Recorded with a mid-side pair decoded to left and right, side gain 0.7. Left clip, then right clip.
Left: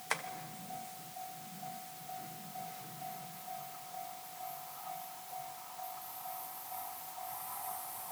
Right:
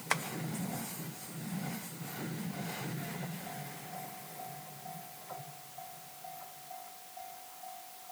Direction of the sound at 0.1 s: 20° right.